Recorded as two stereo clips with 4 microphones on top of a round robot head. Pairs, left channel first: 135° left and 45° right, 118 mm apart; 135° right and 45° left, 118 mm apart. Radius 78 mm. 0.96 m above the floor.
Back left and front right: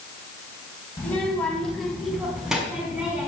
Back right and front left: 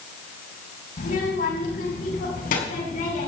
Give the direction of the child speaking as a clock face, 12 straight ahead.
5 o'clock.